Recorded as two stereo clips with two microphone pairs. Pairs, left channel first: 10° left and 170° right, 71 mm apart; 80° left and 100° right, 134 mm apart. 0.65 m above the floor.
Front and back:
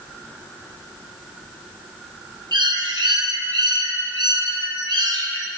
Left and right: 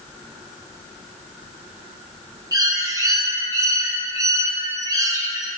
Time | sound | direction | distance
2.5 | a bird | 165° right | 0.7 m